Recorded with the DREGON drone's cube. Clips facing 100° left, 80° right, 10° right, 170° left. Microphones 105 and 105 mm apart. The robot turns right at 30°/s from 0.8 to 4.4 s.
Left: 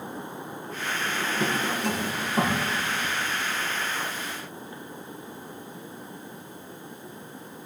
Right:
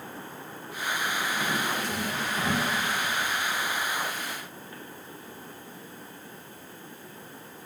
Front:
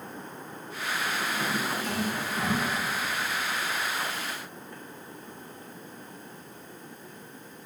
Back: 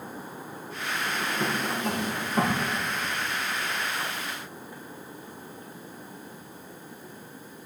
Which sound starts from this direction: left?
A drawer, at 1.1 s.